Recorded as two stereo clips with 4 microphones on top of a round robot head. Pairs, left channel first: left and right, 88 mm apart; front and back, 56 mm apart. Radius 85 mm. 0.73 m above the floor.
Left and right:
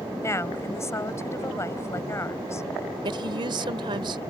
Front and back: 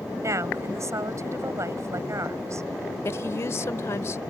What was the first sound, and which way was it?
A woman speaking, 150° left.